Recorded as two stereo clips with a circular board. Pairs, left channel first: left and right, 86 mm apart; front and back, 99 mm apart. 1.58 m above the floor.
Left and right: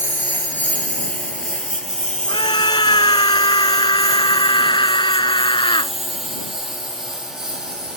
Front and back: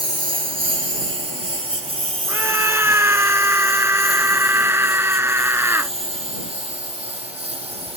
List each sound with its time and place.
0.0 s a lawn mower: 155° left; by 8.0 s 175° right
2.3 s a scream: 115° left